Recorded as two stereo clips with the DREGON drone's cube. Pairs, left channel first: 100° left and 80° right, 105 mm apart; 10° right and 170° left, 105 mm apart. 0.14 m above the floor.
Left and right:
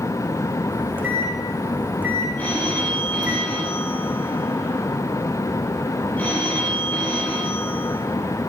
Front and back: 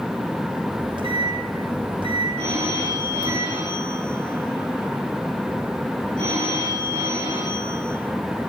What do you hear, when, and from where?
0.7 s a microwave: 155° right, 5 m
2.4 s a phone ringing: 175° left, 8.5 m